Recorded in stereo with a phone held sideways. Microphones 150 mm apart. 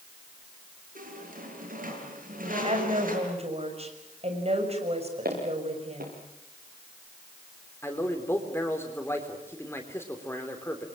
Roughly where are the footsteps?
Right.